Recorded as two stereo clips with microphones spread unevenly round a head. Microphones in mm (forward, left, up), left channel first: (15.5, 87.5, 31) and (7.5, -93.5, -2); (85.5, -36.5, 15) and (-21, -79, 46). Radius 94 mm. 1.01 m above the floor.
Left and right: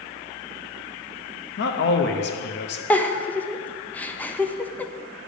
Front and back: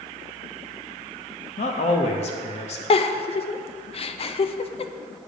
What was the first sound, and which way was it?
A man speaking, 55° left.